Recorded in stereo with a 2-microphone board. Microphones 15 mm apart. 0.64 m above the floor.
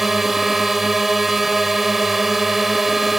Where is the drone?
10° right (ahead or behind).